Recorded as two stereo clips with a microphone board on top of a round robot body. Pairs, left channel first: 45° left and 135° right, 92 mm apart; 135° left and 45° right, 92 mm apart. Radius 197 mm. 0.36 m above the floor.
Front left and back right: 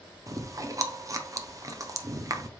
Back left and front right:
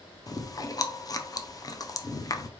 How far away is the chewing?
About 0.8 m.